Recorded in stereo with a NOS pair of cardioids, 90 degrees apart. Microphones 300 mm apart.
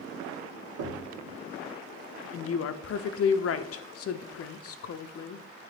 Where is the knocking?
55° right, 1.8 m.